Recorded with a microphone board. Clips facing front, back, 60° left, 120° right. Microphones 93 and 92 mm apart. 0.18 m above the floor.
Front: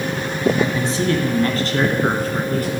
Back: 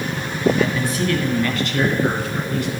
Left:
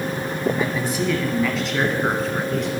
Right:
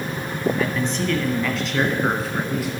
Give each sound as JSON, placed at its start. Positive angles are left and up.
{"t": 0.6, "sound": "a man speaking", "azimuth_deg": 5, "distance_m": 1.0}